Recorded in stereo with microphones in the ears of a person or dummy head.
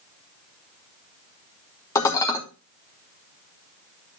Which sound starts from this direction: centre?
Dishes clattering, at 1.9 s.